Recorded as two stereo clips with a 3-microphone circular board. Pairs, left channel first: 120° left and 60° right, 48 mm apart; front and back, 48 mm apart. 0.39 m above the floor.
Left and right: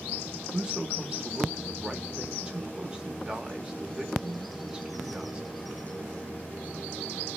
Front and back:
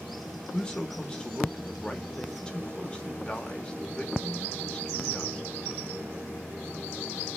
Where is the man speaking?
35° right, 1.0 m.